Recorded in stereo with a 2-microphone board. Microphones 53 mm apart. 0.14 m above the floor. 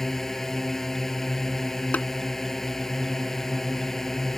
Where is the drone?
5° left (ahead or behind).